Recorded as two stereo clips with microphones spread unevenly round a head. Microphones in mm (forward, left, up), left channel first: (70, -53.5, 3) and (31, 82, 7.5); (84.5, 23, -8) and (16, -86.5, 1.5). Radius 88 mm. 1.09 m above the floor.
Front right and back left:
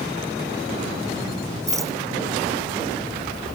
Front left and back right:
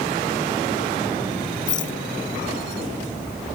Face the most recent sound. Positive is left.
turn(degrees=40)